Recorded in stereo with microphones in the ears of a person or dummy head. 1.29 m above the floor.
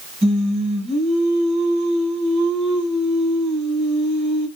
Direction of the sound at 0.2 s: 45° right (ahead or behind).